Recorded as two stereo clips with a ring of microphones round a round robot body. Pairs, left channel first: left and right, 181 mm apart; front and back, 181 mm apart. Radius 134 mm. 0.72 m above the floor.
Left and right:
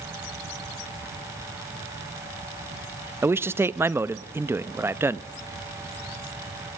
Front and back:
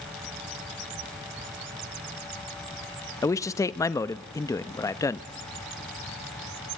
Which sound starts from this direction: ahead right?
A man speaking, at 3.2 s.